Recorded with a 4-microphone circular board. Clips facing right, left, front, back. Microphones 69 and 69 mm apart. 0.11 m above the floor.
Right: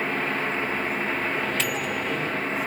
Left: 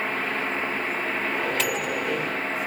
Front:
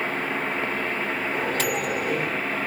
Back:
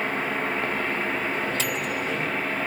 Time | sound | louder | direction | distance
1.3 | a microwave | left 1 dB, front 2 dB | straight ahead | 2.5 m